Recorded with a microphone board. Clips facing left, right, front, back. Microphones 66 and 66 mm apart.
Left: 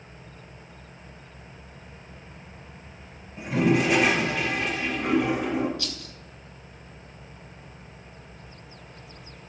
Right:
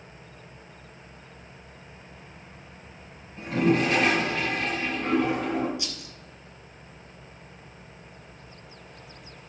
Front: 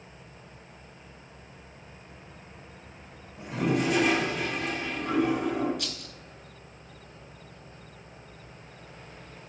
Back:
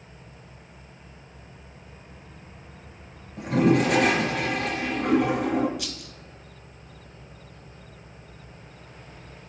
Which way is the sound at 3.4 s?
165° left.